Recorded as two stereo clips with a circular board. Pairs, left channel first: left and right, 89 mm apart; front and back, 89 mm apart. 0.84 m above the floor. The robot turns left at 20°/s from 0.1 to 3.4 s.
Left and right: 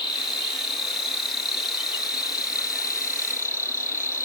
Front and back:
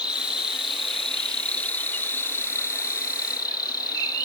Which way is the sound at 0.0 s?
105° left.